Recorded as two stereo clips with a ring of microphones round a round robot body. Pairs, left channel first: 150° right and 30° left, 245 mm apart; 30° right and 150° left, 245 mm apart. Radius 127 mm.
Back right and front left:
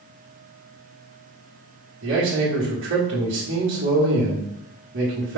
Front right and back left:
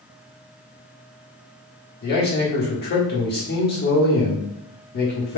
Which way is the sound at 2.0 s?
10° left.